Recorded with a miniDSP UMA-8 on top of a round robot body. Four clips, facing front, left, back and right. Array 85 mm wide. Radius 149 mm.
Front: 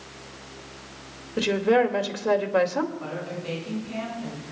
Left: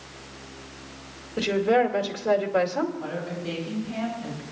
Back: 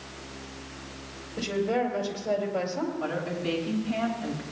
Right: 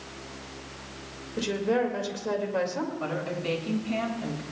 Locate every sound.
1.4 s a woman speaking: 15° left, 2 m
3.0 s a woman speaking: 90° right, 6 m